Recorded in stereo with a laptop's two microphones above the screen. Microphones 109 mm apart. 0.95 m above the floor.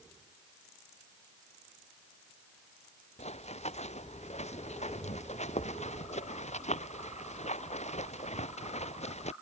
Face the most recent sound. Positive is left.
turn(degrees=75)  # may be behind; listen again after turning